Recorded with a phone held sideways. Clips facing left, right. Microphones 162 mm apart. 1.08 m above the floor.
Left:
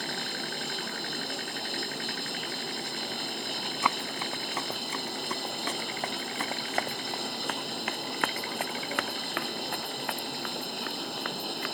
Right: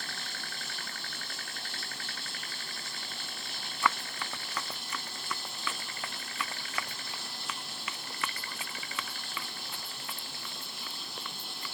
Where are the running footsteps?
20° left (ahead or behind); by 11.8 s 80° left.